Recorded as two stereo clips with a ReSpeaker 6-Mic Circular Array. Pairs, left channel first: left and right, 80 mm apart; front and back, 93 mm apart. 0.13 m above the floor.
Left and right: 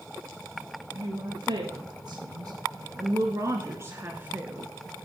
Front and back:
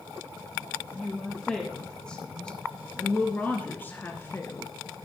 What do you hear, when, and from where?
0.9 s a woman speaking: 85° right, 2.5 m; by 4.7 s 30° right, 1.3 m